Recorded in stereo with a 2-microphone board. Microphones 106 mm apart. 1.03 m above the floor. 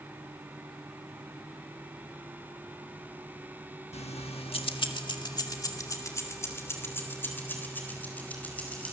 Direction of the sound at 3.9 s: 80° left.